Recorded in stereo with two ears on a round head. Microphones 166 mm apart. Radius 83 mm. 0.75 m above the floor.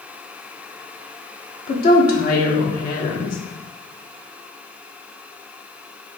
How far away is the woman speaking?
About 1.2 m.